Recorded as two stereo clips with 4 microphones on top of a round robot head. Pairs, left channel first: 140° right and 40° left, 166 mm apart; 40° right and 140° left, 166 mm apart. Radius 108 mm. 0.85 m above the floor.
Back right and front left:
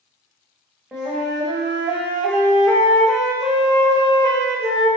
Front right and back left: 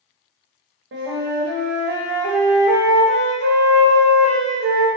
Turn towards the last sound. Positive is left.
turn(degrees=130)